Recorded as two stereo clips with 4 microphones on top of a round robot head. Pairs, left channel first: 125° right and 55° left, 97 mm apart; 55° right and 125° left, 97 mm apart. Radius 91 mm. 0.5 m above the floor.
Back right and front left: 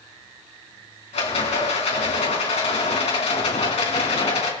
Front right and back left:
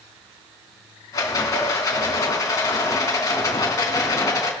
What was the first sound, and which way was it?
A rattle, 110° right.